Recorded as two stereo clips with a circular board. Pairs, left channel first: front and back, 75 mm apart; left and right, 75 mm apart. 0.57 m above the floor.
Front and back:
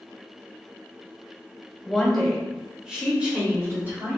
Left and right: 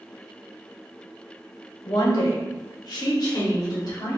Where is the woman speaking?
80° left, 1.6 m; by 4.2 s 120° left, 2.0 m.